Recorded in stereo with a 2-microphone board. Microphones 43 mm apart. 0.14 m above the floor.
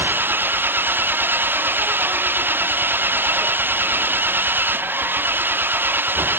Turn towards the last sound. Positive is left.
turn(degrees=-50)  # may be behind; listen again after turning